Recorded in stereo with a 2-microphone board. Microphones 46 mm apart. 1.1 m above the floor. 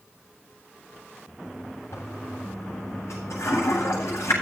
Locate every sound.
1.9 s a toilet flushing: 85° left, 8 m